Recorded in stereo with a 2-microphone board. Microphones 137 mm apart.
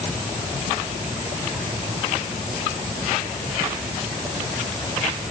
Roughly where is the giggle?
No giggle in this recording.